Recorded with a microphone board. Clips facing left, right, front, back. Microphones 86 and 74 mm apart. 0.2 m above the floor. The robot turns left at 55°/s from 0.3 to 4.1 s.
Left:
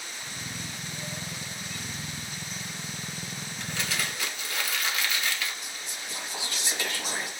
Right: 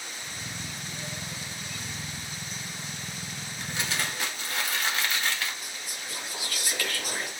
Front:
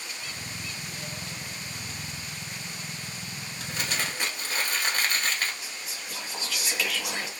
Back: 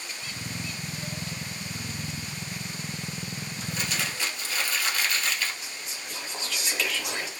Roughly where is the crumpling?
Ahead.